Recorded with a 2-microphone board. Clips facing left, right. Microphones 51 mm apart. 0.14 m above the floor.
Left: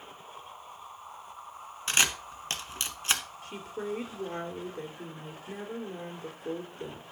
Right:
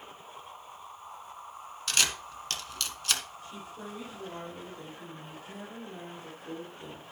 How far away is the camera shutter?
About 1.3 m.